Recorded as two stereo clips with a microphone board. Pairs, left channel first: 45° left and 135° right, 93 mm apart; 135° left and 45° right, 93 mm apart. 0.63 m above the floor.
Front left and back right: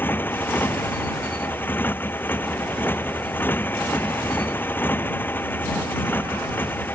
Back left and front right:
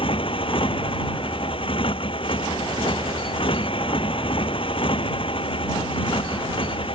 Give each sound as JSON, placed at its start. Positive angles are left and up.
{"t": 0.0, "sound": "a motorcycle", "azimuth_deg": 115}